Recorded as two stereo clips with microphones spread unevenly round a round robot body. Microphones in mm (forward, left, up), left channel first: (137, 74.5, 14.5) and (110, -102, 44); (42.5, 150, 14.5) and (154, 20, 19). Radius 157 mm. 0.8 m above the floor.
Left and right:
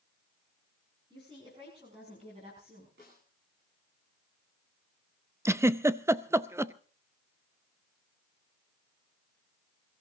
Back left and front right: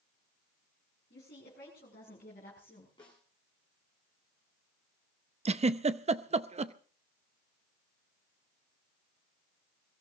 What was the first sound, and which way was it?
A woman speaking, 175° right.